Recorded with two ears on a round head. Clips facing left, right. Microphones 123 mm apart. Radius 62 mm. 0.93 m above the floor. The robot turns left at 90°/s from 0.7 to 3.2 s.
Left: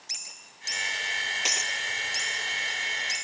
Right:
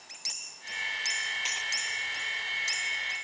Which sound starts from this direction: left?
Breaking glass, at 1.4 s.